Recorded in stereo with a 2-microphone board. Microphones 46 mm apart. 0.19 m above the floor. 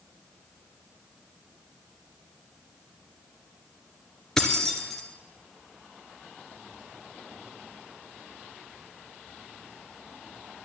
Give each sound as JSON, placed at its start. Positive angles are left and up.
{"t": 4.4, "sound": "keys jangling", "side_deg": 10, "distance_m": 1.8}